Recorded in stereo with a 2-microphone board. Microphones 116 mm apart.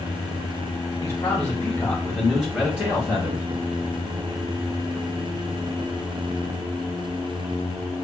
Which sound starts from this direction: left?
A man speaking, at 1.0 s.